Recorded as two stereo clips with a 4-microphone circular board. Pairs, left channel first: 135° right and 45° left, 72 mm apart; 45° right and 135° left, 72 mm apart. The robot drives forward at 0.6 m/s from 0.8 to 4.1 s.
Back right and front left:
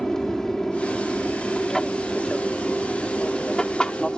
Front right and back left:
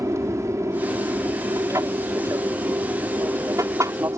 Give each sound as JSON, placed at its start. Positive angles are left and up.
{"t": 0.0, "sound": "an aircraft", "azimuth_deg": 145}